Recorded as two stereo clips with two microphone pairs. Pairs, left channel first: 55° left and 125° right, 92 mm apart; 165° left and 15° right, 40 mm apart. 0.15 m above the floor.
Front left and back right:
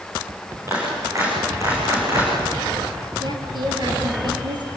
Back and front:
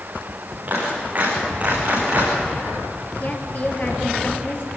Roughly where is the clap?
Ahead right.